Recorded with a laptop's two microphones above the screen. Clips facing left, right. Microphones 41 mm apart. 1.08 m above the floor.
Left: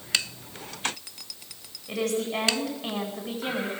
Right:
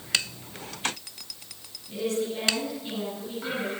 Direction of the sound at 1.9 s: 80° left.